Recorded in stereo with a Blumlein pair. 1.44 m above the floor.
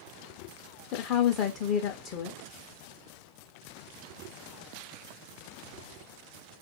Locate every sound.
0.9 s a woman speaking: 40° left, 0.6 m